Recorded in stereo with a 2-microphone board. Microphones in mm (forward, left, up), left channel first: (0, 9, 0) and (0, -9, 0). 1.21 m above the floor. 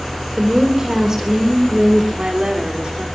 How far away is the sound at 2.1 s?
About 4 m.